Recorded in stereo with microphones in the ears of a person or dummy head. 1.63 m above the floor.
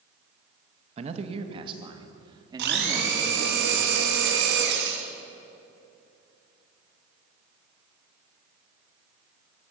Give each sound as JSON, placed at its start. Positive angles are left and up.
{"t": 1.0, "sound": "a man speaking", "side_deg": -35, "distance_m": 2.0}
{"t": 2.6, "sound": "a blender", "side_deg": -60, "distance_m": 3.5}